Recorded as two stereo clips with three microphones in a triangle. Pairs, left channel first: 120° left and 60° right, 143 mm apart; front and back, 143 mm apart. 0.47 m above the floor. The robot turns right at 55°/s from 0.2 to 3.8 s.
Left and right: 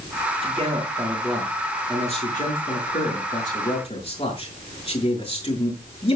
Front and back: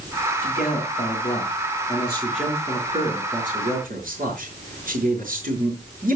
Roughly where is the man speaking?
Ahead.